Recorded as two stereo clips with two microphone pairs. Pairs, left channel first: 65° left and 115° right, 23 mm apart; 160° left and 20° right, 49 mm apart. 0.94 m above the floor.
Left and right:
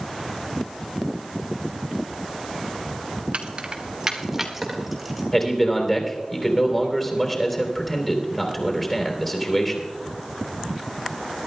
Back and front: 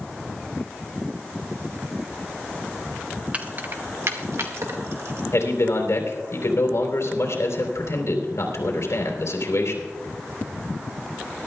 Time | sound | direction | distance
3.3 | keys jangling | 85° right | 1.1 m
5.3 | a man speaking | 145° left | 3.5 m